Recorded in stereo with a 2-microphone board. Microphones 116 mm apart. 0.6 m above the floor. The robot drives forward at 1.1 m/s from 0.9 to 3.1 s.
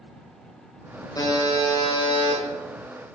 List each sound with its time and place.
1.1 s a buzzer: 35° left (ahead or behind), 2.5 m; by 2.4 s 60° left (ahead or behind), 1.7 m